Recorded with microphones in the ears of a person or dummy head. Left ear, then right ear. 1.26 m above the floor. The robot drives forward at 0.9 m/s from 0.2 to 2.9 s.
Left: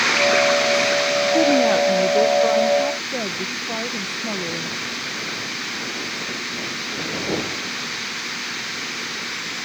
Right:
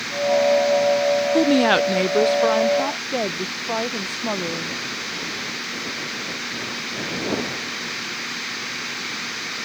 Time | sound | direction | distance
1.3 | a woman speaking | 45° right (ahead or behind) | ?